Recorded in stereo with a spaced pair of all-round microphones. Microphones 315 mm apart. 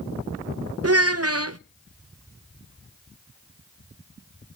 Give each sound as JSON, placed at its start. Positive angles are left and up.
{"t": 0.8, "sound": "a child speaking", "side_deg": -50, "distance_m": 0.6}